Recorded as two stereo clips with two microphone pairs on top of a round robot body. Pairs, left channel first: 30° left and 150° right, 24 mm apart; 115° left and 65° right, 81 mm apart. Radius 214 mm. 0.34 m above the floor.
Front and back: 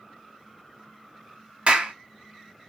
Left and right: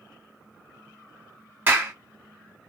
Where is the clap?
130° right, 1.1 m.